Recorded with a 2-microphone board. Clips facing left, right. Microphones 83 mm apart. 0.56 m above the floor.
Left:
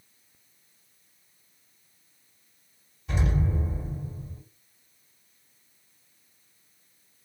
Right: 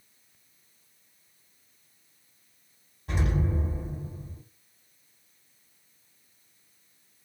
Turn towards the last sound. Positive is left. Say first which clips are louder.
# left 1 dB
turn(degrees=-50)  # may be behind; listen again after turning